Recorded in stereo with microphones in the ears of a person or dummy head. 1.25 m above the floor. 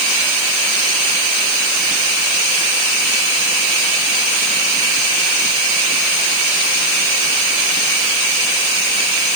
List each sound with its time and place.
Only background noise.